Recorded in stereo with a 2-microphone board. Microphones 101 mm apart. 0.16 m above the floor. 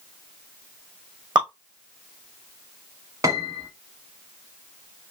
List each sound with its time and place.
1.4 s dripping: 45° right (ahead or behind), 2.5 m
3.2 s a piano: 35° right (ahead or behind), 0.9 m